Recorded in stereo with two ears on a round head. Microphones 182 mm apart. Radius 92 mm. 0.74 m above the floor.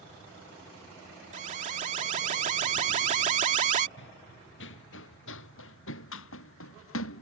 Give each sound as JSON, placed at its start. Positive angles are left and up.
{"t": 1.3, "sound": "an alarm", "side_deg": -40}
{"t": 4.0, "sound": "running footsteps", "side_deg": 65}